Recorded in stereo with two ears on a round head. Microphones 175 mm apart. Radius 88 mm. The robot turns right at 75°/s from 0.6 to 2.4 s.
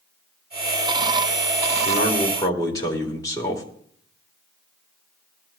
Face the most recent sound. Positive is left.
turn(degrees=160)